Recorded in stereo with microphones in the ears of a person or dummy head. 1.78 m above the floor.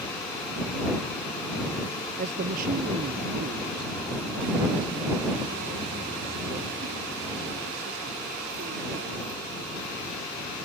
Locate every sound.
2.2 s a man speaking: 45° right (ahead or behind); by 9.8 s 50° right (ahead or behind)